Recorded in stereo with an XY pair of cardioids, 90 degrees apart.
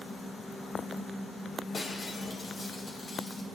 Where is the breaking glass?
40° left, 5 m.